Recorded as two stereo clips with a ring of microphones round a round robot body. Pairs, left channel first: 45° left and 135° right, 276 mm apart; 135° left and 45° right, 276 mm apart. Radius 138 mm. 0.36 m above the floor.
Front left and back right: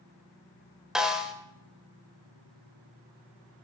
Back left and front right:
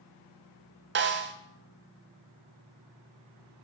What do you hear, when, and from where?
0.9 s a snare drum: 50° right, 1.1 m